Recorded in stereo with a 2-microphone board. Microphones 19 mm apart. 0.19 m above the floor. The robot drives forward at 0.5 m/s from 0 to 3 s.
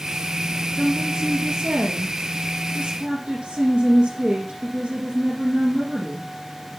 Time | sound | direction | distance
0.8 | a woman speaking | 55° right (ahead or behind) | 4 m